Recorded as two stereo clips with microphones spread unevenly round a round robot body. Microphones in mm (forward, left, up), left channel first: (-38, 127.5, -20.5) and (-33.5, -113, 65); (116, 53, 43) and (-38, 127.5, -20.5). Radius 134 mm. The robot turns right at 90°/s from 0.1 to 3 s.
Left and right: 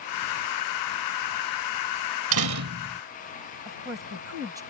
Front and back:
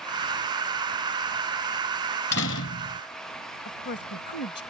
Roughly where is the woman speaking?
Ahead.